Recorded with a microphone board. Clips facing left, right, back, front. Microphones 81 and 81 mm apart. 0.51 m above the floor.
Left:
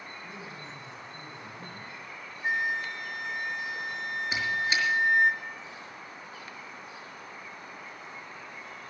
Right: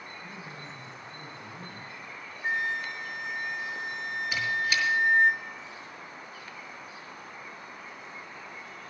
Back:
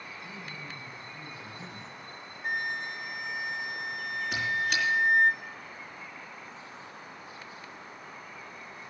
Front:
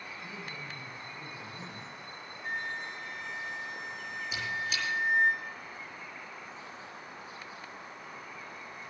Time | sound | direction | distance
0.2 | a man speaking | 40° right | 6.5 m
2.4 | a flute | 175° left | 1.7 m
4.3 | a squeak | 155° left | 5 m